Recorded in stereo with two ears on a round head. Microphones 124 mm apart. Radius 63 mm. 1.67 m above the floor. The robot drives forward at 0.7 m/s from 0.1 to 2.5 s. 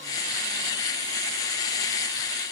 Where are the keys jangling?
I don't hear keys jangling.